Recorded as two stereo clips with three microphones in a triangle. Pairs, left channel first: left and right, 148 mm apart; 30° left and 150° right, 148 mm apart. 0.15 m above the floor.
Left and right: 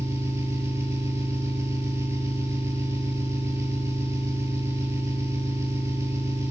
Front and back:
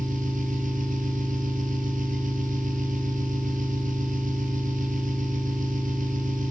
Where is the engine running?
160° right, 2 m.